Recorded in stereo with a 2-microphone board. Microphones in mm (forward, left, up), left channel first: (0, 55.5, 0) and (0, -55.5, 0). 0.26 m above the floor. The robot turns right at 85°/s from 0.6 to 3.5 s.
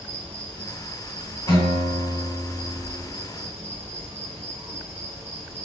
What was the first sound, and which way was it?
An insect, 10° left.